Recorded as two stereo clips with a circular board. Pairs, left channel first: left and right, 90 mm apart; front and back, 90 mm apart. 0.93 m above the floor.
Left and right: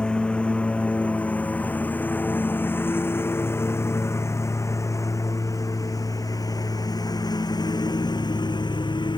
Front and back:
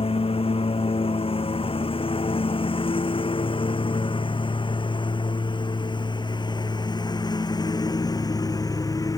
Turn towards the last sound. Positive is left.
turn(degrees=50)